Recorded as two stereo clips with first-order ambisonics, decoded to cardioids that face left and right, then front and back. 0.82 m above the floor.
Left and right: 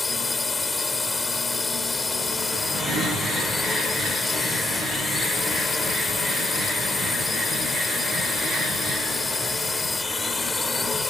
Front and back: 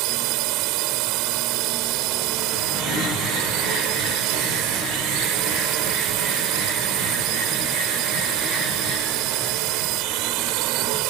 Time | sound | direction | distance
0.0 | a drone | 165° left | ?